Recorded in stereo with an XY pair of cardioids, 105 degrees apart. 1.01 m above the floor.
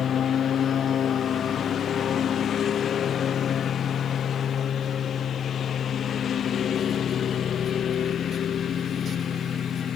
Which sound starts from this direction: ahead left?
A lawn mower, at 0.0 s.